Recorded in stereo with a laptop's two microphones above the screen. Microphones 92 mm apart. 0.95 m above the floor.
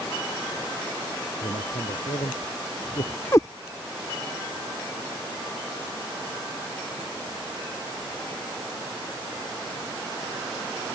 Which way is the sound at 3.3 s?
30° left (ahead or behind).